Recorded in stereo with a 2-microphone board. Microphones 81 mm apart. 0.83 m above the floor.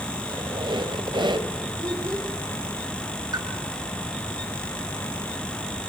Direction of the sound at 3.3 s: 50° right (ahead or behind).